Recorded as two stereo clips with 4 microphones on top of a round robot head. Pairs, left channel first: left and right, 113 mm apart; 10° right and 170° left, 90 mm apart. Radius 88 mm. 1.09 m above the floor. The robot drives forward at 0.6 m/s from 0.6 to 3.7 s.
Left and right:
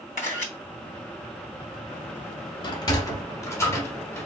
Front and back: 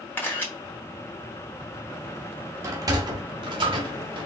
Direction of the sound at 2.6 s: 125° left.